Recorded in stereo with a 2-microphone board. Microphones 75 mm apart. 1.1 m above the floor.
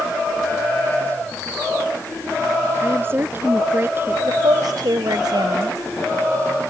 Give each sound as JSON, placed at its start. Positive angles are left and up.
{"t": 2.8, "sound": "a woman speaking", "side_deg": -30}
{"t": 4.2, "sound": "a woman speaking", "side_deg": -65}